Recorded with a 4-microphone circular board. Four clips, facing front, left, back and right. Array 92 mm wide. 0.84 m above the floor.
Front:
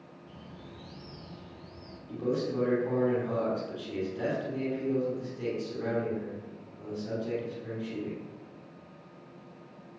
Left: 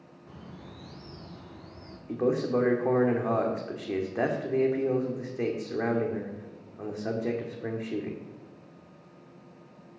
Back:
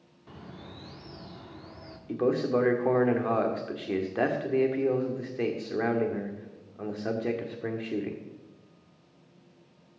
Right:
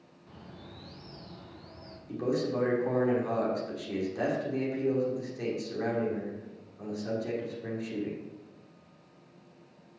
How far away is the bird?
About 1.8 m.